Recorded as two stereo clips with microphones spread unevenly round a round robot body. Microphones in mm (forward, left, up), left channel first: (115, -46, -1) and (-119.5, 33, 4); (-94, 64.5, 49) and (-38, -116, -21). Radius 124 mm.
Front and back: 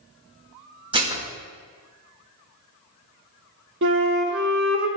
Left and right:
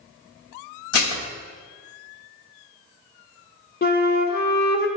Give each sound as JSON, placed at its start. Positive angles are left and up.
{"t": 0.9, "sound": "dishes clattering", "azimuth_deg": 90, "distance_m": 0.9}
{"t": 3.8, "sound": "a flute", "azimuth_deg": 145, "distance_m": 1.0}